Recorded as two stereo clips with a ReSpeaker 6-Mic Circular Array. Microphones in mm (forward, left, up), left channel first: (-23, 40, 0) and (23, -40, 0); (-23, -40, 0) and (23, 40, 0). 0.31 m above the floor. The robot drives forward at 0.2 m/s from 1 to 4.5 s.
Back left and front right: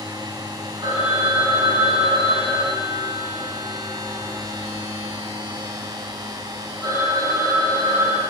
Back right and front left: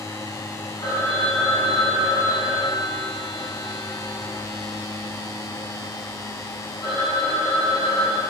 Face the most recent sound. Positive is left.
turn(degrees=-100)